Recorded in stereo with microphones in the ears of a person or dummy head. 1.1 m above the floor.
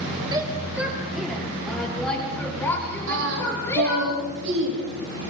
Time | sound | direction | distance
0.3 | a shout | 15° right (ahead or behind) | 1.8 m
3.1 | singing | 65° right (ahead or behind) | 9 m